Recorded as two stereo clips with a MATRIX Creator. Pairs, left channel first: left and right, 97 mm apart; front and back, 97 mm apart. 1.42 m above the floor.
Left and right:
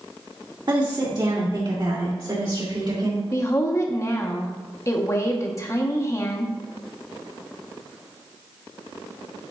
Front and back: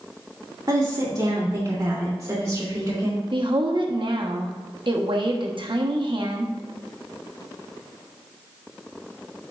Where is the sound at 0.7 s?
130° right, 1.9 m; by 3.2 s 120° right, 3.5 m.